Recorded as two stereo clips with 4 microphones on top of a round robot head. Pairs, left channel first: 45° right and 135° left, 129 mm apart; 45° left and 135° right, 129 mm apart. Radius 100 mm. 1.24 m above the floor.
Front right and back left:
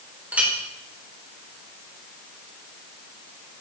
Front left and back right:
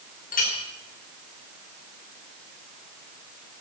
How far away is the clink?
About 3.5 m.